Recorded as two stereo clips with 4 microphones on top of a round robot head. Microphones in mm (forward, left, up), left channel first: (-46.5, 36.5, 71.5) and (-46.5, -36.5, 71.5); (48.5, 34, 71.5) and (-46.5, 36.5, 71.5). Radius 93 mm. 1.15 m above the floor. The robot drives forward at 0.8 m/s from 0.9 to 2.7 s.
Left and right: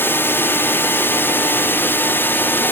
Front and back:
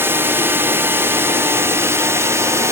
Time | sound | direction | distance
0.0 | a drone | 130° left | ?